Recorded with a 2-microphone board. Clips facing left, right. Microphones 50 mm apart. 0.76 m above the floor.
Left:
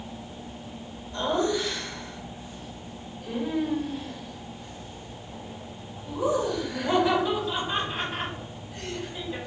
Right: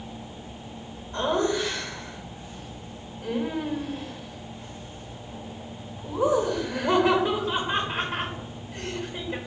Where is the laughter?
35° right (ahead or behind), 1.2 m.